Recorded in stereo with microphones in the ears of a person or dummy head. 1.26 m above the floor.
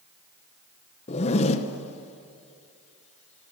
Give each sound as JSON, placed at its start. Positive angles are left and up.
{"t": 1.1, "sound": "a zipper", "side_deg": 35, "distance_m": 1.2}